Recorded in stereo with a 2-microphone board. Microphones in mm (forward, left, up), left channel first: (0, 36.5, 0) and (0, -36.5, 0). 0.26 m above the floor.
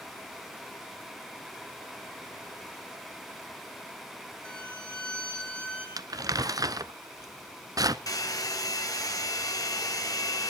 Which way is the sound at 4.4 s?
15° left (ahead or behind).